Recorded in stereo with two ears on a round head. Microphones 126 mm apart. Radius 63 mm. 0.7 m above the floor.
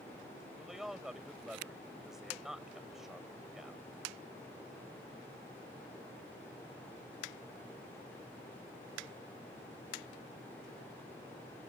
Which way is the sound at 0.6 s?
Centre (ahead or behind).